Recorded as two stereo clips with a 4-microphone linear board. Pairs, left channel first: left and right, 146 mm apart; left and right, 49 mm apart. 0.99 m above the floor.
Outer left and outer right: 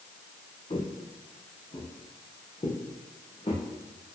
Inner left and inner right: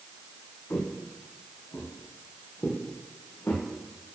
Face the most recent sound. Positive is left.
turn(degrees=40)  # may be behind; listen again after turning